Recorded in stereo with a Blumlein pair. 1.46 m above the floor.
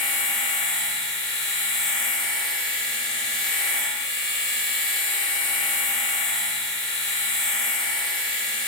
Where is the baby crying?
I don't hear a baby crying.